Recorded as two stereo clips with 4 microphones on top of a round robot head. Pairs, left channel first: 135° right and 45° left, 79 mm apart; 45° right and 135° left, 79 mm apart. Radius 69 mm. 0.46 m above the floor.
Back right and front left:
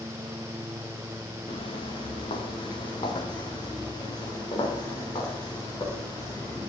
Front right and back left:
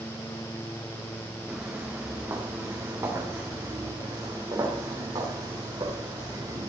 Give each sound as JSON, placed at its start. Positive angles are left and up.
{"t": 1.5, "sound": "footsteps", "azimuth_deg": -150, "distance_m": 2.5}